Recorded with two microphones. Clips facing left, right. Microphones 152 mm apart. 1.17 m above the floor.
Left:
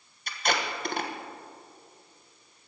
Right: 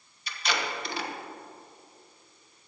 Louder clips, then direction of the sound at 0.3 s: Left 2 dB; 50° left (ahead or behind).